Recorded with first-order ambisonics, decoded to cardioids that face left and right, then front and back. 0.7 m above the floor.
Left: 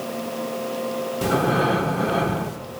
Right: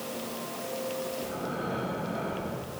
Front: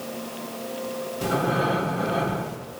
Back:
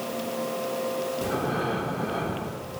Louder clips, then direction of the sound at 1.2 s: Left 13 dB, front 8 dB; 75° left.